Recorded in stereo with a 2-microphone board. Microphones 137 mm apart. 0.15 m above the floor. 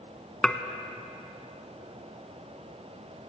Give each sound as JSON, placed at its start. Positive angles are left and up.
{"t": 0.4, "sound": "dishes clattering", "side_deg": 5, "distance_m": 0.8}